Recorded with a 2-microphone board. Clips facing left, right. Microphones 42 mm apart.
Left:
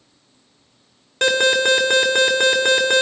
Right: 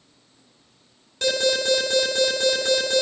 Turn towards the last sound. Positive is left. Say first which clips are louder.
# left 6 dB
turn(degrees=55)  # may be behind; listen again after turning